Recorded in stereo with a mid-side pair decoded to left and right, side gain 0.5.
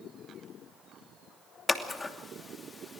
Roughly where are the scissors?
Ahead.